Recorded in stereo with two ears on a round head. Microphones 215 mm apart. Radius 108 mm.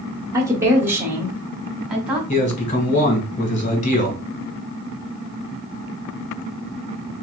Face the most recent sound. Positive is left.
turn(degrees=30)  # may be behind; listen again after turning